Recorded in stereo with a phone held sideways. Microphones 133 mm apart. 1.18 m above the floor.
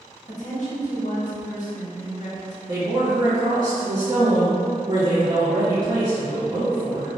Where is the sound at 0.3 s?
60° left (ahead or behind), 1.0 m.